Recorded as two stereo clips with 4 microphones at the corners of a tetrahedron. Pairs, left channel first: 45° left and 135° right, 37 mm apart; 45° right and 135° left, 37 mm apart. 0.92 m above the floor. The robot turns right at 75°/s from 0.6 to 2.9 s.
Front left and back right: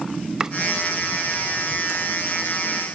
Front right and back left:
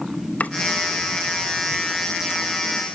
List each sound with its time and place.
0.4 s chopping: 70° right, 0.9 m